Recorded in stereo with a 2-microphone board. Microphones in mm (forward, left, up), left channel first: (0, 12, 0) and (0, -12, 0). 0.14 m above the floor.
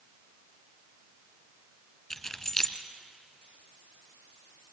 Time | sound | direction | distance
2.1 | keys jangling | 15° left (ahead or behind) | 1.6 m